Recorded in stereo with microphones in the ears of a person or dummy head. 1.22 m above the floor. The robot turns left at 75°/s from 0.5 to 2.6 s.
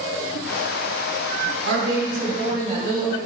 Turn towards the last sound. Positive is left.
turn(degrees=-160)